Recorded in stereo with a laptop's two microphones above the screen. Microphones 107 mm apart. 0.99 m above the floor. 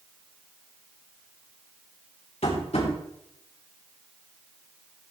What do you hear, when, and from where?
2.4 s tapping: 75° left (ahead or behind), 3.5 m